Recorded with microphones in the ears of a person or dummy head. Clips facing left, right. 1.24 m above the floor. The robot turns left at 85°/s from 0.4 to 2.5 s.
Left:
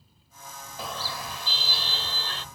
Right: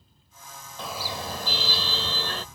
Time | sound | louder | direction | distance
0.8 | a car horn | right 2 dB | 5° left | ?